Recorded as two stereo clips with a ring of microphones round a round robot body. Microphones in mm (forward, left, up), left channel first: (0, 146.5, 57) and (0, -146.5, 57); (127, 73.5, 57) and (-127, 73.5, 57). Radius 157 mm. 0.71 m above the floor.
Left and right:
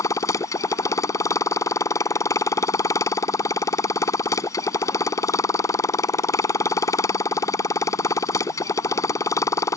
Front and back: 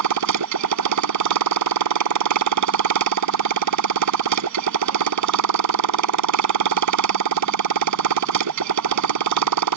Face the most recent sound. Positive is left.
turn(degrees=170)